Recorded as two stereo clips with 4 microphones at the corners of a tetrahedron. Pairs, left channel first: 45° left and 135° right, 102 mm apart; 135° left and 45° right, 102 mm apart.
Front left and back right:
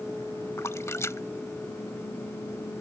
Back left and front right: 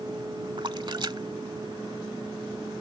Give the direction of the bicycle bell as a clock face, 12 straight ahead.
No bicycle bell in this recording.